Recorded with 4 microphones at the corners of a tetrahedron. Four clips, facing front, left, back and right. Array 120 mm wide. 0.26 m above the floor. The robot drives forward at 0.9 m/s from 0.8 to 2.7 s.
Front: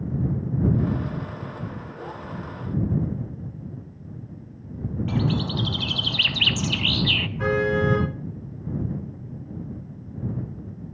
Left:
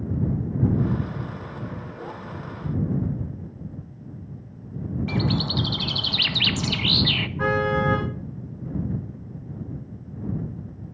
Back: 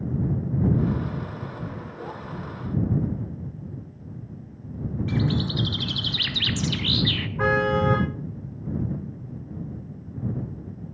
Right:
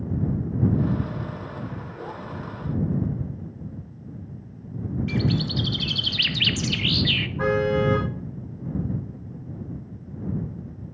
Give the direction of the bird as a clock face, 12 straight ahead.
10 o'clock.